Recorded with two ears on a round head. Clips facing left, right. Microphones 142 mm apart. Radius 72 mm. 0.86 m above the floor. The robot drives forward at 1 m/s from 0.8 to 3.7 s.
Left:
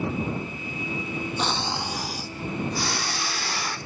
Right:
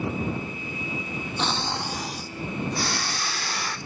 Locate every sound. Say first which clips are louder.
1.4 s snoring: right 2 dB; 5° left (ahead or behind), 1.4 m; by 3.8 s centre (ahead or behind), 3.5 m